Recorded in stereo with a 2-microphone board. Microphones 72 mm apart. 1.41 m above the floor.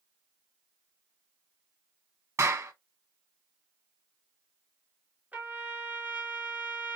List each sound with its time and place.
2.4 s a clap: 45° right (ahead or behind), 1.1 m
5.3 s a trumpet: 20° right (ahead or behind), 2.5 m